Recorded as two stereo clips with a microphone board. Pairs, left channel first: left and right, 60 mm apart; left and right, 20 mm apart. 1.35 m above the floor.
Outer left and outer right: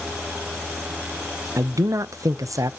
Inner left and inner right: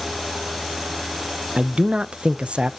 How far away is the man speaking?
About 0.6 m.